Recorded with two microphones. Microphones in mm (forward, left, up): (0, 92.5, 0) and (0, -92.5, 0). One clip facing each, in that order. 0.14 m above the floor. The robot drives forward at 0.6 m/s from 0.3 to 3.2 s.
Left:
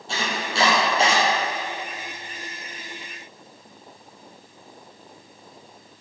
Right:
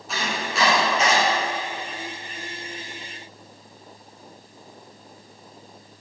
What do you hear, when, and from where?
0.1 s chopping: 30° left (ahead or behind), 4.5 m; by 1.2 s 35° left (ahead or behind), 4 m